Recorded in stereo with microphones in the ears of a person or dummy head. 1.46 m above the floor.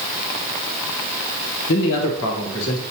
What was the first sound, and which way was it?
A man speaking, 75° left (ahead or behind).